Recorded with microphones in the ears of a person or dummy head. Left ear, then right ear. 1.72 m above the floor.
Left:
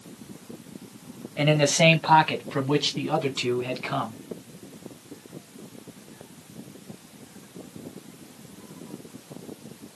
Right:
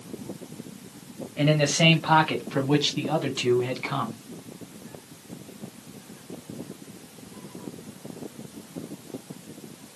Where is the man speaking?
30° left (ahead or behind), 1.0 m; by 4.2 s 5° left (ahead or behind), 2.5 m.